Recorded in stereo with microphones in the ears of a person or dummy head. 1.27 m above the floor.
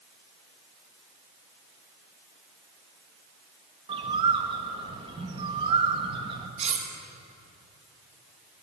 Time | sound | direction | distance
3.9 | a bird | 35° right (ahead or behind) | 0.8 m
6.6 | cutlery clinking | 40° right (ahead or behind) | 1.1 m